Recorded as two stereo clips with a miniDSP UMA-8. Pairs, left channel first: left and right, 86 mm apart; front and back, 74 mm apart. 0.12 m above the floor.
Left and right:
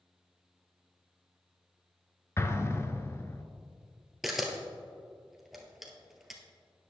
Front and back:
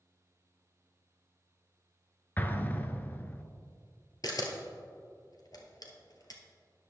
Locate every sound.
2.4 s an explosion: 50° left, 0.7 m
4.2 s a camera shutter: 5° right, 1.4 m